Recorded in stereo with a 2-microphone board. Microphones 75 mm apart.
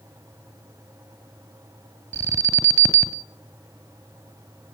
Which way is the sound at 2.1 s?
40° right (ahead or behind).